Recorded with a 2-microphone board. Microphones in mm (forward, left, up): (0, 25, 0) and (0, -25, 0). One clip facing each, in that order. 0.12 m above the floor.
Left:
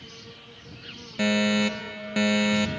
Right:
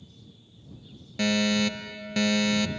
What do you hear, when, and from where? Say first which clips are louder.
0.0 s an insect: left 8 dB; 80° left
1.2 s a fire alarm: left 2 dB; 15° left (ahead or behind)